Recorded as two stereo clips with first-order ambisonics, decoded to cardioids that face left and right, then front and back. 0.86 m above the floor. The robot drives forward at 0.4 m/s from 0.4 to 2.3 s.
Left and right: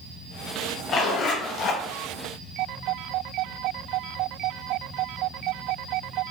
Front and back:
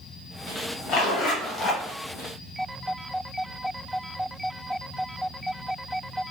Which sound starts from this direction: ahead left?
A zipper, at 0.9 s.